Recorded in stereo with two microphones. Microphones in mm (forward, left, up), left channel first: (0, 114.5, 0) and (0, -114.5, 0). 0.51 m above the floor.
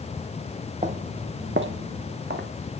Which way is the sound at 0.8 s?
30° right (ahead or behind).